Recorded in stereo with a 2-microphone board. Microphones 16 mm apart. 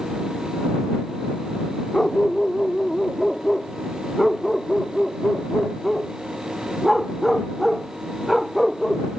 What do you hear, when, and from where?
1.9 s a dog barking: 25° left (ahead or behind); by 9.1 s 10° right (ahead or behind)